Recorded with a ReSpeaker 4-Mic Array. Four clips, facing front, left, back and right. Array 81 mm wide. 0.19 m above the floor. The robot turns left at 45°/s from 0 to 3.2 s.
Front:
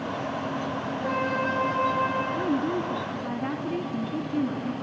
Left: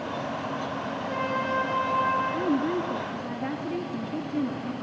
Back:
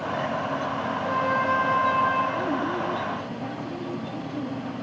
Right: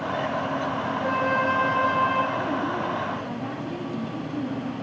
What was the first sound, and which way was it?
A flute, 50° right.